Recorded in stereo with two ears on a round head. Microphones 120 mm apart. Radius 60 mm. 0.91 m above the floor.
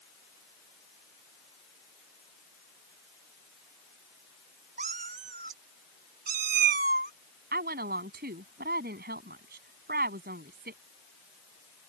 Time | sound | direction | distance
4.8 | a cat meowing | 60° right (ahead or behind) | ?
7.5 | a woman speaking | 80° right | ?